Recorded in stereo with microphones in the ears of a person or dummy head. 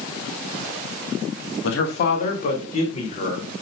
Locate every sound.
1.6 s a man speaking: 70° left (ahead or behind), 1.8 m; by 3.5 s 40° left (ahead or behind), 4 m